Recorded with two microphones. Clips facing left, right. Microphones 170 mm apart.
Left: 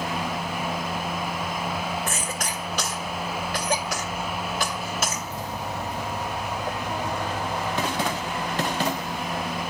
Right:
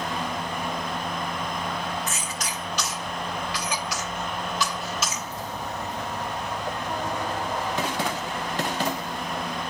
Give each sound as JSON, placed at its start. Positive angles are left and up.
{"t": 2.1, "sound": "a cough", "side_deg": 50, "distance_m": 2.5}